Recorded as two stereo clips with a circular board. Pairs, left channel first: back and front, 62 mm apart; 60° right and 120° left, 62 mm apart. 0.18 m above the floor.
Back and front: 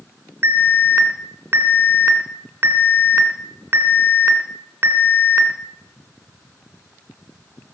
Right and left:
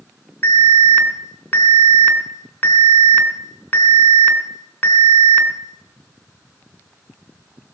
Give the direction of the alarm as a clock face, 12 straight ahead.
12 o'clock.